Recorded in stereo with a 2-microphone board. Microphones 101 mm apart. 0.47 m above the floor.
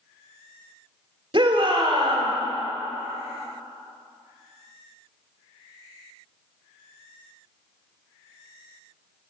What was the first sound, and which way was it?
A shout, 50° right (ahead or behind).